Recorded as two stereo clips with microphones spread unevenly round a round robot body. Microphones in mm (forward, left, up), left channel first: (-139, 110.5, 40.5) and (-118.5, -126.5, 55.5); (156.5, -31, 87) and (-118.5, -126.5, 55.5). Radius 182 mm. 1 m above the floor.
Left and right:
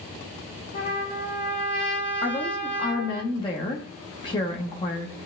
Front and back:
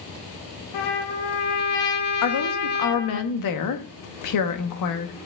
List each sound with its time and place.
0.7 s a trumpet: 25° left, 1.2 m
2.2 s a woman speaking: 25° left, 1.1 m